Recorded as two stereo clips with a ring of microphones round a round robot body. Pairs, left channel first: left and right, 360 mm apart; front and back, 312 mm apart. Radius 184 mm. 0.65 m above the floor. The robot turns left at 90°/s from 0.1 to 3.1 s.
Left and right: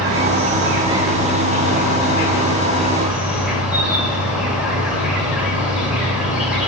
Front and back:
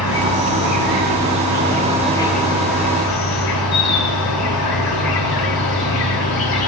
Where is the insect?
95° right, 2 m; by 6.7 s 5° right, 2 m.